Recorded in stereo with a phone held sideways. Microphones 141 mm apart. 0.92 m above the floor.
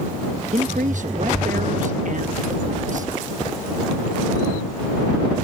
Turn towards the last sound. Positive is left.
turn(degrees=-65)  # may be behind; listen again after turning